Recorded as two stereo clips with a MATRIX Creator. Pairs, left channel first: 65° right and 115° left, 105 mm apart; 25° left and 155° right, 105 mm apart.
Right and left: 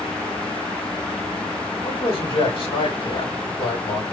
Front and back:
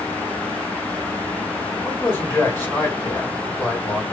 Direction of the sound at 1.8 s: 45° right.